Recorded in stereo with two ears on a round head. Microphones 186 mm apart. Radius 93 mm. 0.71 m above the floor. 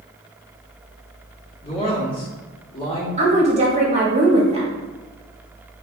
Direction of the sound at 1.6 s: 25° left (ahead or behind).